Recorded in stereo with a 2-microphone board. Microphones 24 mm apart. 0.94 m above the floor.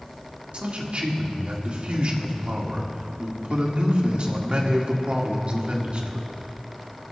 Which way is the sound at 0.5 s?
55° right (ahead or behind).